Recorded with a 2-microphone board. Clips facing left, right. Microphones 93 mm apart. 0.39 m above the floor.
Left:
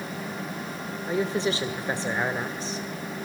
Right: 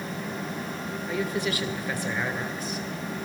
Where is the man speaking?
30° left (ahead or behind), 1.4 m.